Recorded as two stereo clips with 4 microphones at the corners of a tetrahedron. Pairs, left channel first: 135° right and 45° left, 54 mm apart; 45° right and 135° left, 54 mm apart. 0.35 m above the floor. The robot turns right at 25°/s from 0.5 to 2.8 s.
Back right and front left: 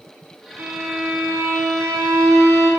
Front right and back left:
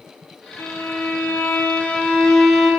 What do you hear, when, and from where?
0.6 s a violin: 15° right, 1.2 m; by 2.7 s 35° left, 1.2 m